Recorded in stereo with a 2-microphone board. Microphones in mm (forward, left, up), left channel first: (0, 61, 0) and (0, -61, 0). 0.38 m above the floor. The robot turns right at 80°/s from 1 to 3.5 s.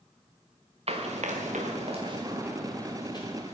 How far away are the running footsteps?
About 1.7 m.